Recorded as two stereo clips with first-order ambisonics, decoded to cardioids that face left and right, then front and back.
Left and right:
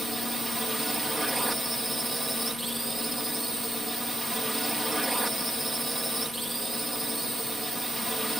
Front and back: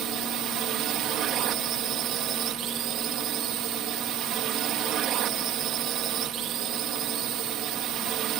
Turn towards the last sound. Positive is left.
turn(degrees=-170)